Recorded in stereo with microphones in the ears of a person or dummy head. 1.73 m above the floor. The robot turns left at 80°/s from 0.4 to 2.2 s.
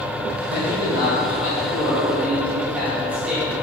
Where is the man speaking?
130° left, 1.7 m; by 3.6 s 10° right, 1.7 m.